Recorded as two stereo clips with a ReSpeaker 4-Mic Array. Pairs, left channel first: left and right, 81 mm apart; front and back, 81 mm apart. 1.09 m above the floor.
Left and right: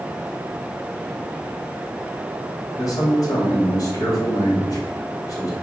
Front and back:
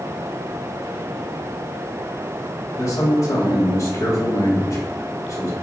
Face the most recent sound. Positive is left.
turn(degrees=45)